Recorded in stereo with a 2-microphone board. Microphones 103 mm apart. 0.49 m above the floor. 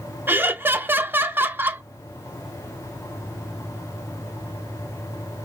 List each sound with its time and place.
0.3 s laughter: 20° right (ahead or behind), 0.7 m